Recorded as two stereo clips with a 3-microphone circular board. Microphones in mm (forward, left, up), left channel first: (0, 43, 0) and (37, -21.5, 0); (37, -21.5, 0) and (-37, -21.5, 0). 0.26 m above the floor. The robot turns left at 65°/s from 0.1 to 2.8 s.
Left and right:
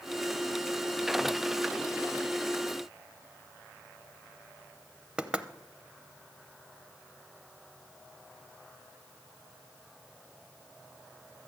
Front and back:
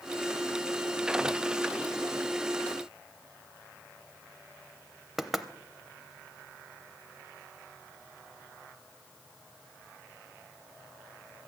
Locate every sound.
5.2 s knocking: 100° right, 0.6 m